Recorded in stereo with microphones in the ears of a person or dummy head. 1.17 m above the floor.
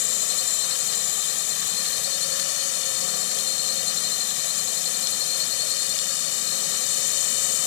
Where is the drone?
60° left (ahead or behind).